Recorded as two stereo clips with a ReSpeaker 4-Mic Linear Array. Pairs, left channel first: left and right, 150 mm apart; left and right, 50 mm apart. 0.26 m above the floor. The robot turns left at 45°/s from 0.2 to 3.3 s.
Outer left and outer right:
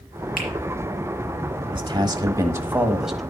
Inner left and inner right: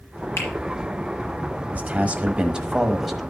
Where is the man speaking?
115° right, 1.2 m; by 3.2 s straight behind, 1.2 m.